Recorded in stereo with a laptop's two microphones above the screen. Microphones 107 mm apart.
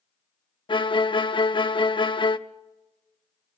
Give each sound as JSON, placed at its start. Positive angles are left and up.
{"t": 0.7, "sound": "a violin", "side_deg": 50, "distance_m": 0.7}